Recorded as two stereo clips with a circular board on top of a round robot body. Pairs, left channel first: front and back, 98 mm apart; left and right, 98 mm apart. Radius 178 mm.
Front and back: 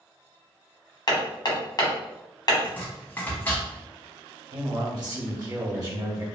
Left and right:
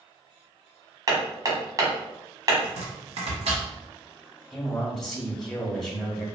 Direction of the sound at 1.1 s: 40° right.